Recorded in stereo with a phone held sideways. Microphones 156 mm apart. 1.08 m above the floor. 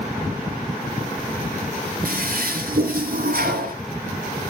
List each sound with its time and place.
2.0 s a toilet flushing: 70° right (ahead or behind), 3.5 m